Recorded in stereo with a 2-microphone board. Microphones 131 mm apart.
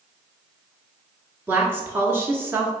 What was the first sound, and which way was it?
A woman speaking, 15° right (ahead or behind).